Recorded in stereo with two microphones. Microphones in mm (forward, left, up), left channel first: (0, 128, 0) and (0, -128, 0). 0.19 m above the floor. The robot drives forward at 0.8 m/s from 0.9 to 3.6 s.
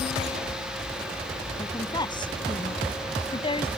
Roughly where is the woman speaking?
Centre.